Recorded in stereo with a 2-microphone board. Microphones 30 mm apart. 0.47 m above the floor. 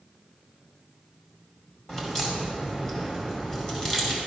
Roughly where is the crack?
Left.